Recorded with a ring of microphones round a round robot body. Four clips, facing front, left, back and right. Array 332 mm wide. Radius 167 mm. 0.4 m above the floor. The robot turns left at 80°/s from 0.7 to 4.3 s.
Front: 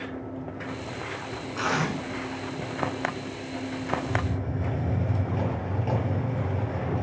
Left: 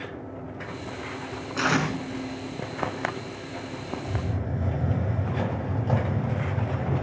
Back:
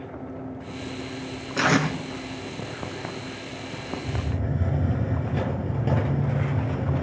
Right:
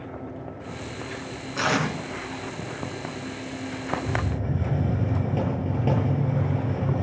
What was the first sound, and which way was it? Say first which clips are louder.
Tape being pulled: even, back 5 dB; straight behind.